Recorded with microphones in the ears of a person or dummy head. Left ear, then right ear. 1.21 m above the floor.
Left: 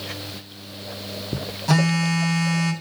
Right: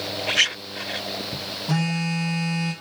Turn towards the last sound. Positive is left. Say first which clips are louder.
# left 7 dB
turn(degrees=45)  # may be behind; listen again after turning